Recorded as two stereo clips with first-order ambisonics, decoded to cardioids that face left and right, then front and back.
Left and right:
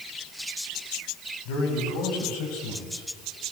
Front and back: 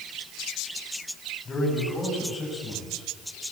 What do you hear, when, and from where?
1.4 s a man speaking: 75° left, 8.5 m; by 3.1 s 90° left, 7.5 m